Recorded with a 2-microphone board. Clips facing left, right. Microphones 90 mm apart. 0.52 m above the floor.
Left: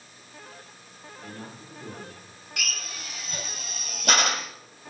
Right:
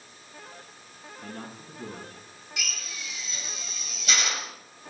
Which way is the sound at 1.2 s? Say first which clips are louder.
Right 1 dB; 55° right (ahead or behind).